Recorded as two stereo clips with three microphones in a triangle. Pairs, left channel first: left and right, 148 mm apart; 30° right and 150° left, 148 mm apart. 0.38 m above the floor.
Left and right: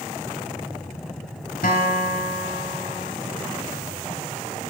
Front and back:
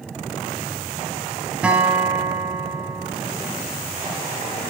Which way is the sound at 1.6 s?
70° left.